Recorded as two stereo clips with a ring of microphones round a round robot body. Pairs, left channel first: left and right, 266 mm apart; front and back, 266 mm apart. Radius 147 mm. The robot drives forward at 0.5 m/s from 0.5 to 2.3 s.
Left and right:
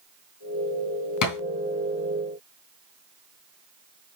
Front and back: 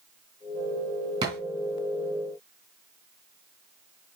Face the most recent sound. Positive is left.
turn(degrees=110)